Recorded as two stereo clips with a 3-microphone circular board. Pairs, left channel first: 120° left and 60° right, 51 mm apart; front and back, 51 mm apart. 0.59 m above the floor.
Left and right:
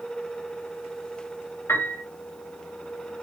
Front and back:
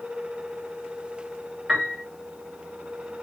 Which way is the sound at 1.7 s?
95° left.